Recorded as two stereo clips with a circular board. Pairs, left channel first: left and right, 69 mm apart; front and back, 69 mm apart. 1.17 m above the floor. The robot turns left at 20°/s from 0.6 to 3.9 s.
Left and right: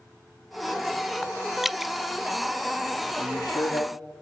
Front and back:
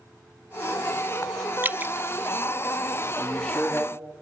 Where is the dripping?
165° right, 0.5 m; by 1.9 s 175° right, 0.5 m.